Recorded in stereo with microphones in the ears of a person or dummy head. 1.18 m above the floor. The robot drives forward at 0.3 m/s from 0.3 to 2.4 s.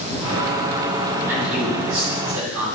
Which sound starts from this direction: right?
A man speaking, at 1.3 s.